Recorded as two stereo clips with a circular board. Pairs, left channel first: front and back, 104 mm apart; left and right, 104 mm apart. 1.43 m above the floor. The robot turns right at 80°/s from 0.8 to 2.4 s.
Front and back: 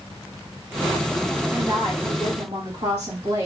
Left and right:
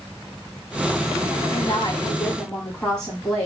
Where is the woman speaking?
105° left, 2.5 m; by 3.5 s 175° left, 2.5 m.